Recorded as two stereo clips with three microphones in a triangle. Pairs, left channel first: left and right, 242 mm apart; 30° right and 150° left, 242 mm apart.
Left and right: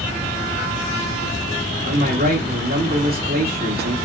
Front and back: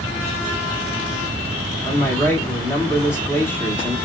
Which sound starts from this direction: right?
A man speaking, at 1.8 s.